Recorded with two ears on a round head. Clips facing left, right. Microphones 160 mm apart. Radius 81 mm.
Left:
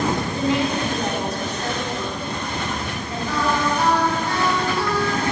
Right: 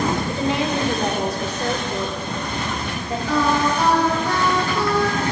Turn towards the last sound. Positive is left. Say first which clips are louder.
# right 3 dB
turn(degrees=-65)  # may be behind; listen again after turning